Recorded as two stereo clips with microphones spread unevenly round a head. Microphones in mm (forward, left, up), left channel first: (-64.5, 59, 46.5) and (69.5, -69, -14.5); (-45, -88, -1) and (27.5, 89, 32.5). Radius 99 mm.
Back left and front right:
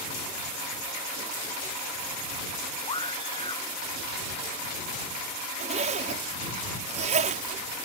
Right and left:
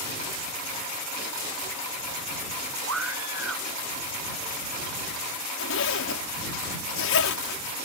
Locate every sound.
2.9 s a scream: 70° left
5.6 s a zipper: 100° right